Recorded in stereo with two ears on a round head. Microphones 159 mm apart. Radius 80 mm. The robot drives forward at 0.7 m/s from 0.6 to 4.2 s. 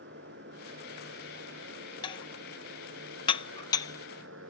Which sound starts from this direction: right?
A motorcycle, at 0.0 s.